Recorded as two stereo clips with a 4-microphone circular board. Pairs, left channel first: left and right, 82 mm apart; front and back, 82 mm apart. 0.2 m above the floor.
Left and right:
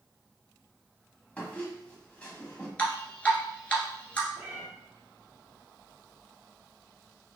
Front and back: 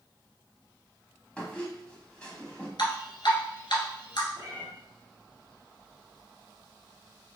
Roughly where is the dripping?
Ahead.